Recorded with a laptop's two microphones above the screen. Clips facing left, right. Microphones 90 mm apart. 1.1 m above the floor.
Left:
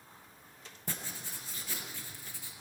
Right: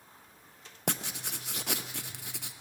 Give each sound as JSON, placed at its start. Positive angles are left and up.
{"t": 0.9, "sound": "writing", "side_deg": -85, "distance_m": 0.8}